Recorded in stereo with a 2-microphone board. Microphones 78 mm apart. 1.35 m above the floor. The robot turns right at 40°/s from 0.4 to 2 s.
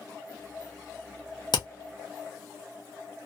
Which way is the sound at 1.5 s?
70° left (ahead or behind).